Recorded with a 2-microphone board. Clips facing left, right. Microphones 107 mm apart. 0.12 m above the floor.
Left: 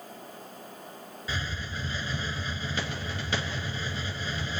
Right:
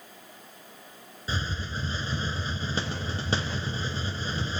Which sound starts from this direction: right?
A hiss, at 1.3 s.